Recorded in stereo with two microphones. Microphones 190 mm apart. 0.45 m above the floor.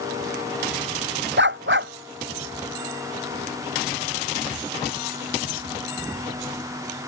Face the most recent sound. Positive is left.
turn(degrees=-75)  # may be behind; listen again after turning